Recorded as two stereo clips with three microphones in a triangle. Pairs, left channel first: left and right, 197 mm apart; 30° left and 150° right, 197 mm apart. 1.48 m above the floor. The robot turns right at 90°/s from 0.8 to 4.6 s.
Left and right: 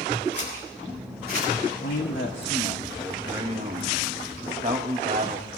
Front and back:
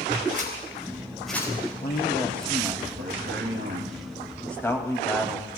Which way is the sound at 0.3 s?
105° right.